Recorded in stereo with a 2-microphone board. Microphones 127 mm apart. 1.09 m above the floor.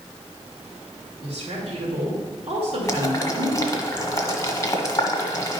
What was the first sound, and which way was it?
A woman speaking, 70° right (ahead or behind).